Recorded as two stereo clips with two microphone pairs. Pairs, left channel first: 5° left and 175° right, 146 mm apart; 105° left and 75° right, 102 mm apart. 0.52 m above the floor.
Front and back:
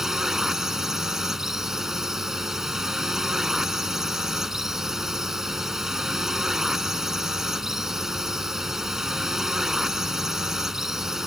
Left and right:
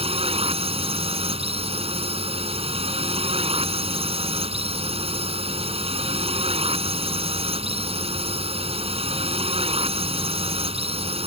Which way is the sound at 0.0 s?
90° right.